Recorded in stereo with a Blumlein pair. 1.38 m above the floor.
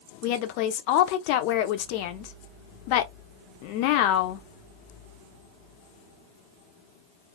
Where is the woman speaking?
45° left, 0.5 m.